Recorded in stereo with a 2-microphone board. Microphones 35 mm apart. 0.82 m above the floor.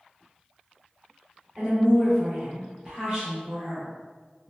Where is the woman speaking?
15° right (ahead or behind), 1.0 m.